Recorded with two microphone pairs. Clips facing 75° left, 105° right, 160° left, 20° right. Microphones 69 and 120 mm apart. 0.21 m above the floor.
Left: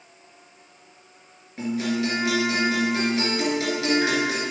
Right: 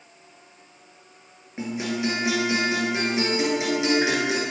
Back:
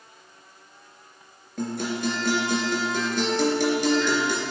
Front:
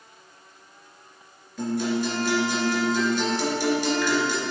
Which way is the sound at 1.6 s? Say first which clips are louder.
Left 2 dB, front 3 dB; 170° right.